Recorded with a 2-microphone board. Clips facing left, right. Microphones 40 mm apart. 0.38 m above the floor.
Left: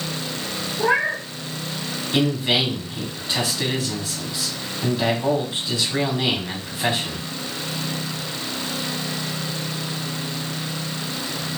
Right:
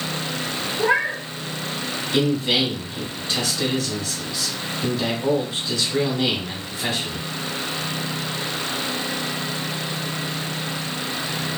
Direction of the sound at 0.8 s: Centre (ahead or behind).